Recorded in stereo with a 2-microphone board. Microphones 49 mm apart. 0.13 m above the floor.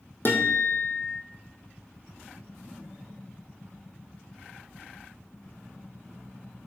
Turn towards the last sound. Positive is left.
turn(degrees=50)  # may be behind; listen again after turning